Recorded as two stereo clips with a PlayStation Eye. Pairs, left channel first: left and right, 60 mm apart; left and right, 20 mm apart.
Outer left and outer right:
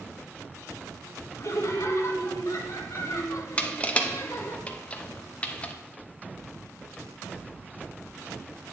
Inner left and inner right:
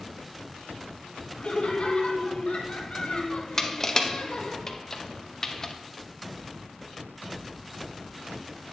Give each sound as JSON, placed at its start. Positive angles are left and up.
{"t": 1.4, "sound": "laughter", "side_deg": 55, "distance_m": 1.4}
{"t": 3.6, "sound": "crushing", "side_deg": 20, "distance_m": 0.7}